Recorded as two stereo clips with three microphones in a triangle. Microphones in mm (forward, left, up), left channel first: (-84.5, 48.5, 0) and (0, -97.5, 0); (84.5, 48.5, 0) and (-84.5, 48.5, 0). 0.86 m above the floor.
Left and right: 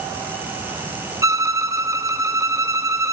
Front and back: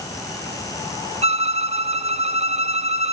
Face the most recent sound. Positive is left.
turn(degrees=-135)